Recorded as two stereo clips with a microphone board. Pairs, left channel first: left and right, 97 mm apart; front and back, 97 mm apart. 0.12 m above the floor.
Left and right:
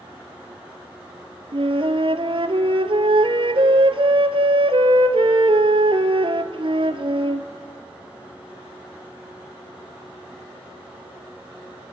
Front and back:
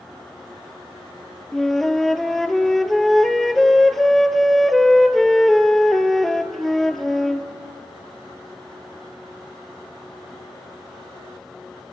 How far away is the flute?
About 0.8 m.